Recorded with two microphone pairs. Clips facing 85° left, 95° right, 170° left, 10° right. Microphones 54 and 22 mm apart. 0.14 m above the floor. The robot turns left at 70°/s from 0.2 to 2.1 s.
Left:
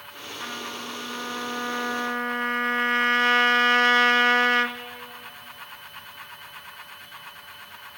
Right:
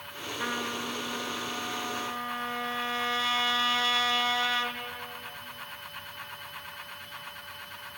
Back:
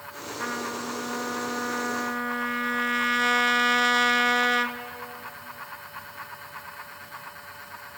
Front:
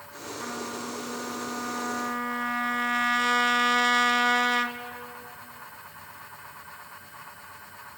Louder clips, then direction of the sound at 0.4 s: Right 2 dB, back 4 dB; 150° right.